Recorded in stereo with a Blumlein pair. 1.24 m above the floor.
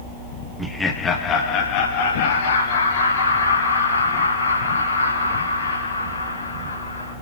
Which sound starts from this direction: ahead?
Laughter, at 0.6 s.